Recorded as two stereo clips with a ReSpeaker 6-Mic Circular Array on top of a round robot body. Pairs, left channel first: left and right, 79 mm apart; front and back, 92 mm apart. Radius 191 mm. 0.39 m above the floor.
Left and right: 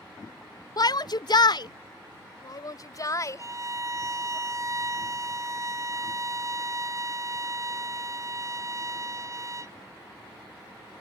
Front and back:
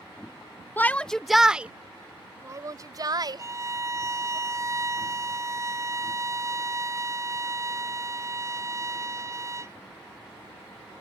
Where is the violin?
130° right.